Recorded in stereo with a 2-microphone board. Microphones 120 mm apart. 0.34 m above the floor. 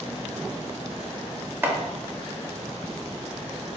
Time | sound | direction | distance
1.6 | chopping | 15° right (ahead or behind) | 0.5 m